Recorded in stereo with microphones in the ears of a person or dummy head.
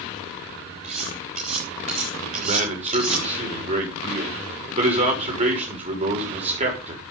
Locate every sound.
0.8 s cutlery clinking: 35° right (ahead or behind), 3 m
2.4 s a man speaking: 35° right (ahead or behind), 6 m